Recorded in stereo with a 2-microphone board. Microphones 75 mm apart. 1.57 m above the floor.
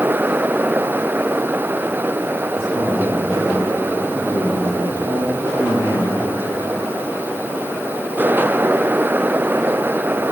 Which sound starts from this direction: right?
A man speaking, at 2.6 s.